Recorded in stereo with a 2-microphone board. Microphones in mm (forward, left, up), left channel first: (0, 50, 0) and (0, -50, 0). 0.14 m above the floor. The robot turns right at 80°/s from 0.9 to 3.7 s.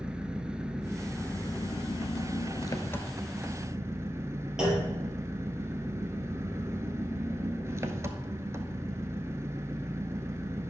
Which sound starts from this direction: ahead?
An engine running, at 0.0 s.